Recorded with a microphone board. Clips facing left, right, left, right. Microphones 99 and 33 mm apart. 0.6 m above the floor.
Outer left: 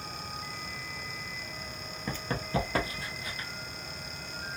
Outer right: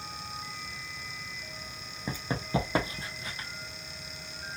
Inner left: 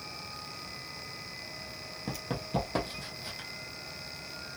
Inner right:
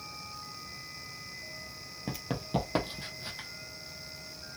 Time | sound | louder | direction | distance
2.1 | running footsteps | outer right 1 dB, inner right 1 dB | 10° right (ahead or behind) | 0.7 m